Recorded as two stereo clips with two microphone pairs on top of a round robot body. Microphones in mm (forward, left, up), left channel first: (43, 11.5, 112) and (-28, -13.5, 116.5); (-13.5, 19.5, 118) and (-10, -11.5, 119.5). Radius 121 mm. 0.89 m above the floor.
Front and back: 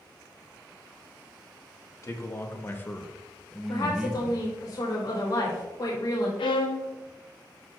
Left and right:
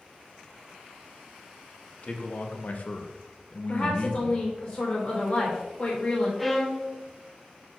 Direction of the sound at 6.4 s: 10° left.